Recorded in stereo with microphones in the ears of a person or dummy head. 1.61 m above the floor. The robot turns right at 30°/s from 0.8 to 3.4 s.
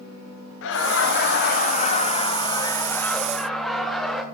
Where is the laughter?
100° left, 0.9 m; by 4.2 s straight behind, 0.9 m.